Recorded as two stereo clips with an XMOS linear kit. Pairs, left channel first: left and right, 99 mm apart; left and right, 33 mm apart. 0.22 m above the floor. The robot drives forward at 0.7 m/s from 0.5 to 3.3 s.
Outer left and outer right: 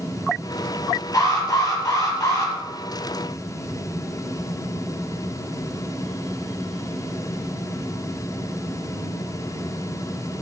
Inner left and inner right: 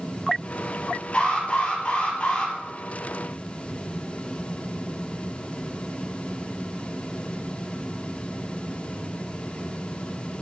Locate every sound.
1.1 s an alarm: 35° left (ahead or behind), 6 m; by 2.5 s 30° left (ahead or behind), 7 m